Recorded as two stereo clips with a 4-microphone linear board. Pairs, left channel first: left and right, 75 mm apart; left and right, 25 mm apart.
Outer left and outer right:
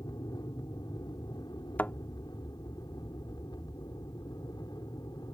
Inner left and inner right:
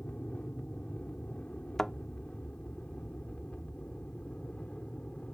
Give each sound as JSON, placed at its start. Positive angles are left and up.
{"t": 0.0, "sound": "an aircraft", "side_deg": 65}
{"t": 1.8, "sound": "a thud", "side_deg": 20}